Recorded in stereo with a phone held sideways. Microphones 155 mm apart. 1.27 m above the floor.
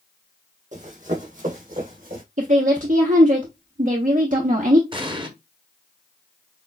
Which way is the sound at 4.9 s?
30° right (ahead or behind).